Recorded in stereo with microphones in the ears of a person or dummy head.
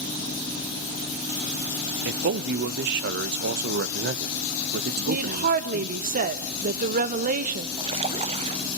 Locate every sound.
2.0 s a man speaking: 55° right (ahead or behind), 0.7 m
5.0 s a woman speaking: 45° right (ahead or behind), 1.0 m
7.8 s a splash: 20° right (ahead or behind), 0.6 m